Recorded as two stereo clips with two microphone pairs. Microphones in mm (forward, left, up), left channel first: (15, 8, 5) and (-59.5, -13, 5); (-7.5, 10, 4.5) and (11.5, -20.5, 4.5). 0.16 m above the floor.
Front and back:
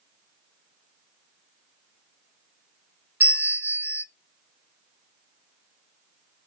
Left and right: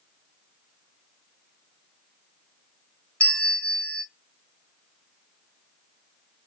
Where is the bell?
155° left, 0.7 m.